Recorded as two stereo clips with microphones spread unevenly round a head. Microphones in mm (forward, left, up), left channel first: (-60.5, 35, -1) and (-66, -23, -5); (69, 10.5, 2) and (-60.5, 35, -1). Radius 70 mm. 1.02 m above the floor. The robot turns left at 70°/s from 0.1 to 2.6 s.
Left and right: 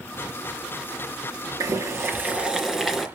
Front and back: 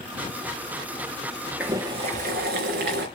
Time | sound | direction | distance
1.6 | boiling | 110° right | 3.5 m